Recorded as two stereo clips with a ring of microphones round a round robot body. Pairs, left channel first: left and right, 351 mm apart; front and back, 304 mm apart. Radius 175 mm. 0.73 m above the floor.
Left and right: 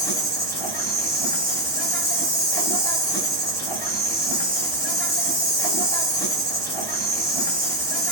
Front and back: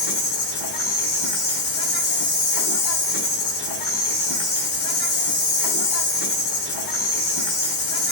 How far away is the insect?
About 3 m.